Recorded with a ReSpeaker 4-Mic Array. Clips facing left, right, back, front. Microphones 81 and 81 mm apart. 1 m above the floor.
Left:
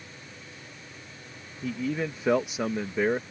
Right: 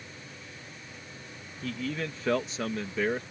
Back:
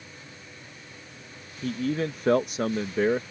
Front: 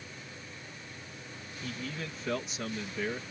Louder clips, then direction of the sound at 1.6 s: Left 4 dB, back 12 dB; 160° left.